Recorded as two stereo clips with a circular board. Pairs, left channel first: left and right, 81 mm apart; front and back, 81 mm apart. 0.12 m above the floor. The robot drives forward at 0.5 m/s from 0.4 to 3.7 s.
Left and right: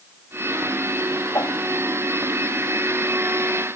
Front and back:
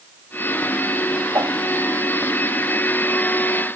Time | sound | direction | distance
1.3 | a whoosh | 135° left | ?